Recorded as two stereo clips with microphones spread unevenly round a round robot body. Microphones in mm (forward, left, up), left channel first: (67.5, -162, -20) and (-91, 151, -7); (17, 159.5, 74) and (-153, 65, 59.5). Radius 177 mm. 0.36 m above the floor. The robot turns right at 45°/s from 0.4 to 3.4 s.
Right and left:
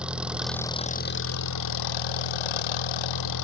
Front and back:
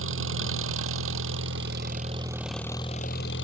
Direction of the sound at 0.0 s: 155° right.